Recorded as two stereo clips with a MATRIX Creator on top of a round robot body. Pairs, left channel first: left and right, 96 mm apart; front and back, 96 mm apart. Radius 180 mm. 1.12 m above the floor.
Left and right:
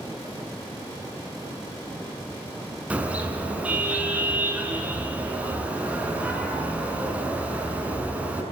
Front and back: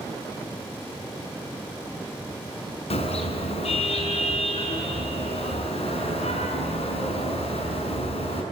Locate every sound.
2.9 s a car horn: 15° right, 6 m